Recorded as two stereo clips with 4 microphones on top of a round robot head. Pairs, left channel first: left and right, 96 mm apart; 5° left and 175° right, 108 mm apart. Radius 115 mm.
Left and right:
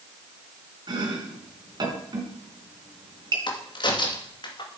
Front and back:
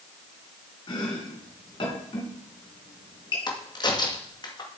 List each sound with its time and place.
0.9 s chopping: 45° right, 3 m
3.5 s a crack: 55° left, 2.5 m